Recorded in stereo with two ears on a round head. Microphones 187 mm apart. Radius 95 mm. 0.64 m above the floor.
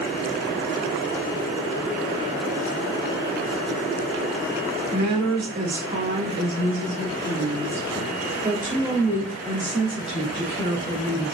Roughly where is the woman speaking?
Right.